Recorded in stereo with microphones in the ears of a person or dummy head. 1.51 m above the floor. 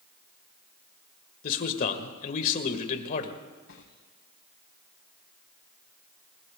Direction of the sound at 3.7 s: 85° left.